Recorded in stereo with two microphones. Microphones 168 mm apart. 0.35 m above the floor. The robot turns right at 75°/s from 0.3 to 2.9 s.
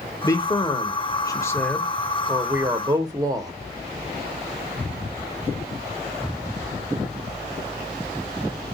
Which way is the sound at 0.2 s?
20° left (ahead or behind).